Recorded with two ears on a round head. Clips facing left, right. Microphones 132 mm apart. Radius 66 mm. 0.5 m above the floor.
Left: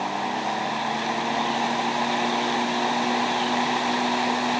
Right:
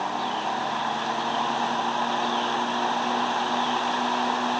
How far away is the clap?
No clap in this recording.